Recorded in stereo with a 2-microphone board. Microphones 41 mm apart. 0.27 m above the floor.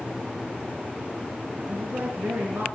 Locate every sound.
1.7 s a woman speaking: 70° right (ahead or behind), 4.5 m